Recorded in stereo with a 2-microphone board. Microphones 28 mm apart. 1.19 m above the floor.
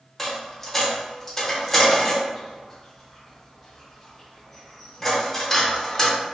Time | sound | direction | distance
0.2 | a dropped coin | 5° left (ahead or behind) | 0.9 m